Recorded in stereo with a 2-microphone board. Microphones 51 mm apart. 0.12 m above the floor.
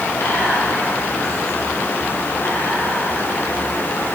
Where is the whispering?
60° left (ahead or behind), 4 m.